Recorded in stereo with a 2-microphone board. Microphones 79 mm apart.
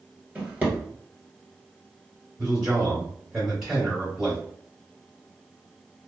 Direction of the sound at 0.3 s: 20° right (ahead or behind).